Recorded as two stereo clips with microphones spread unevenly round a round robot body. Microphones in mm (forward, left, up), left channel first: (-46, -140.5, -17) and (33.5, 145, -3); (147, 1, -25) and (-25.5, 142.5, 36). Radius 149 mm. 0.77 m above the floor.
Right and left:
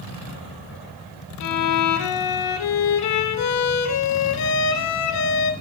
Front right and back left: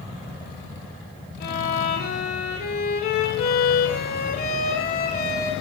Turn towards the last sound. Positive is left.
turn(degrees=-100)